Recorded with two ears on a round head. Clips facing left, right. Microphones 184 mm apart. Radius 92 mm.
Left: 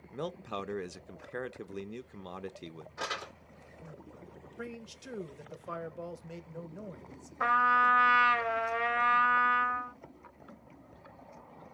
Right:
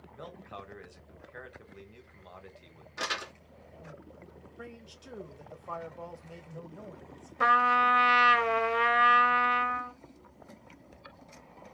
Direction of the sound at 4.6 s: 25° left (ahead or behind).